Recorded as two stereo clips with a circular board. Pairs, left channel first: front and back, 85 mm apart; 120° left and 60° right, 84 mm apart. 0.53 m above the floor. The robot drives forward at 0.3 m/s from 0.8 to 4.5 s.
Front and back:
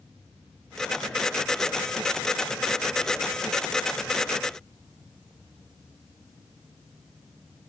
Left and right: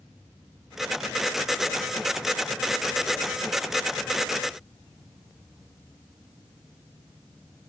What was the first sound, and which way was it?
Only background noise.